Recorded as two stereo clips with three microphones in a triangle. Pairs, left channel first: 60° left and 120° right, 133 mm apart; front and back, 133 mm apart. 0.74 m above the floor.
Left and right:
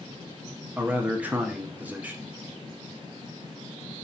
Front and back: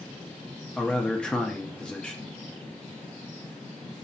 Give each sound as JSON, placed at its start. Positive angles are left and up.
{"t": 0.8, "sound": "a man speaking", "azimuth_deg": -70, "distance_m": 0.6}